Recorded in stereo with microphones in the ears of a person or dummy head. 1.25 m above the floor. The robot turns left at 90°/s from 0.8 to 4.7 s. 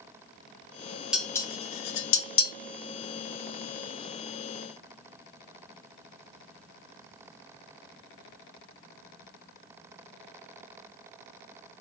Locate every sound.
1.1 s dishes clattering: centre (ahead or behind), 0.7 m; by 2.5 s 50° left (ahead or behind), 0.7 m